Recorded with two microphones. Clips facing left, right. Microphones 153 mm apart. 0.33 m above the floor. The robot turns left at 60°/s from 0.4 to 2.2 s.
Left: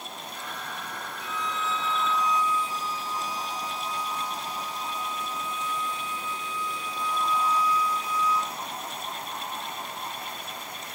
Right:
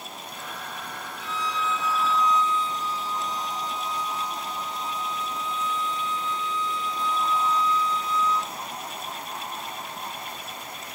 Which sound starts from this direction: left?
A violin, at 1.2 s.